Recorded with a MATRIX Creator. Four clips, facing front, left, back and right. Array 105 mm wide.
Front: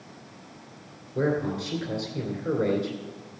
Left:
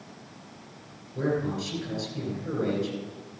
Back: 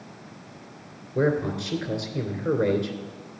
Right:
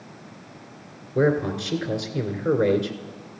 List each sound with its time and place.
1.1 s a man speaking: 105° right, 2 m